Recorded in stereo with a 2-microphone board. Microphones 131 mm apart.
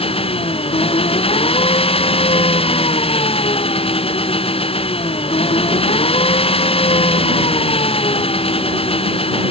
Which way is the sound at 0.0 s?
50° left (ahead or behind).